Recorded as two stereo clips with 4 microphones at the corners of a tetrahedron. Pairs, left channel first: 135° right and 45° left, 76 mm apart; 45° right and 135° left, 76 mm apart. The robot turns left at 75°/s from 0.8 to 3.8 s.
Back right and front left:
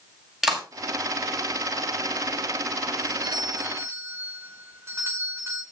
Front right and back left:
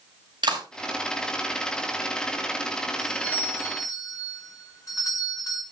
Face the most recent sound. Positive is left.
turn(degrees=-5)